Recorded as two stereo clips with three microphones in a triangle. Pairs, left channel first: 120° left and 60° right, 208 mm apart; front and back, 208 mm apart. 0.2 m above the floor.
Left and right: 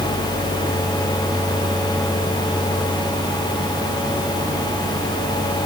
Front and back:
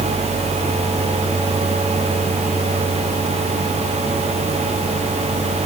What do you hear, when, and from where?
Only background noise.